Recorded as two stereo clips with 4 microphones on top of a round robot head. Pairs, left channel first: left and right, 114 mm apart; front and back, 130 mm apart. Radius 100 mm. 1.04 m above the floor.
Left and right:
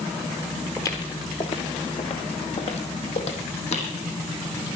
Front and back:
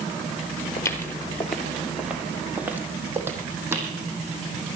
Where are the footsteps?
35° left, 1.1 m; by 3.9 s 110° left, 2.5 m.